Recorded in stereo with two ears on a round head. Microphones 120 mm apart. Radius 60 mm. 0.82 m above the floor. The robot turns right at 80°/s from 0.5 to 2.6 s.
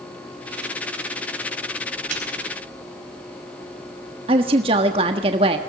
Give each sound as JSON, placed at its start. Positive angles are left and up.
{"t": 2.1, "sound": "a snare drum", "side_deg": -65, "distance_m": 5.0}
{"t": 4.3, "sound": "a woman speaking", "side_deg": -40, "distance_m": 1.4}